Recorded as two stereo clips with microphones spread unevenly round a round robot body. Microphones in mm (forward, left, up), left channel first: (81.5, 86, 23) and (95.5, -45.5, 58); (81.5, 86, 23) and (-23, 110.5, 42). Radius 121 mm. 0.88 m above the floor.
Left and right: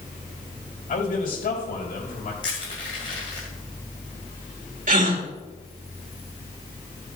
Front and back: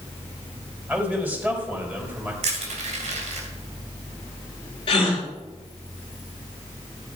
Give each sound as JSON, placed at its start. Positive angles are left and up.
{"t": 0.9, "sound": "a man speaking", "azimuth_deg": 90, "distance_m": 4.0}
{"t": 2.4, "sound": "crushing", "azimuth_deg": 165, "distance_m": 2.5}
{"t": 4.9, "sound": "a gasp", "azimuth_deg": -60, "distance_m": 3.0}